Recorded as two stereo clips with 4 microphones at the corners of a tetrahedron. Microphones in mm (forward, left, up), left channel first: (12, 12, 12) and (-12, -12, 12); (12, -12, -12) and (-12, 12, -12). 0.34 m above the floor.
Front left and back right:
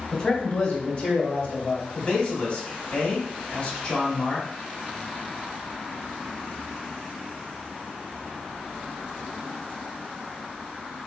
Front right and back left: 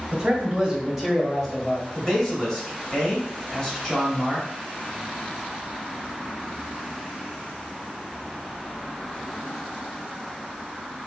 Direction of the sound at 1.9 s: 25° left.